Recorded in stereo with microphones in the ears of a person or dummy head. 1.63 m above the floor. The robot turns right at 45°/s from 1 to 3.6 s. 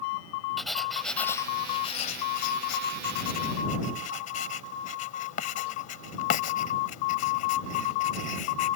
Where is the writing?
Centre (ahead or behind); by 8.8 s 55° left (ahead or behind).